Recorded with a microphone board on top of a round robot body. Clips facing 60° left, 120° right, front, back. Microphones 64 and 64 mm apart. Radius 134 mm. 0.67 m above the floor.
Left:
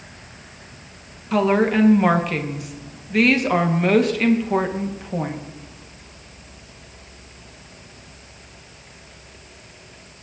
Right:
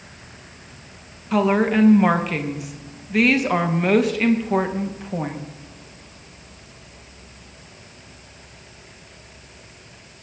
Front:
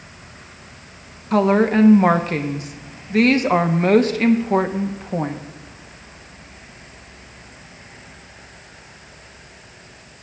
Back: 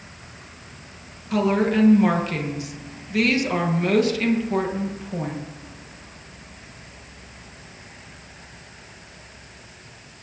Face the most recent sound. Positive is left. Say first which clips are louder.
# left 1 dB, front 5 dB
turn(degrees=-30)